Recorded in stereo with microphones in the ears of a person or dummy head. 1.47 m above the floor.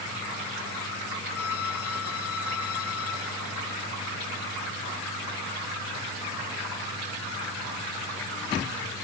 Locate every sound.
1.4 s a violin: 80° left